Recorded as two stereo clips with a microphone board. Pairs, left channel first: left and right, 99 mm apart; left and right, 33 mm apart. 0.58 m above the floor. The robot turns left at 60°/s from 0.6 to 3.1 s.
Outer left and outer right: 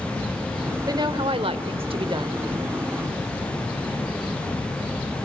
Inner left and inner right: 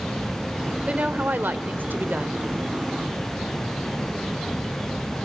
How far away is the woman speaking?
About 2 m.